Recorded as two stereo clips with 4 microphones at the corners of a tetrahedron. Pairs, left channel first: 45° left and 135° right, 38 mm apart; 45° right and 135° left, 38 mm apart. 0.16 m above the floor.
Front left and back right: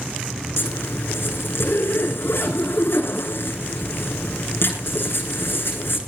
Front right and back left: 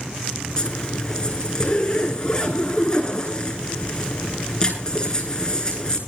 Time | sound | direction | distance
0.6 | a zipper | 25° left | 5 m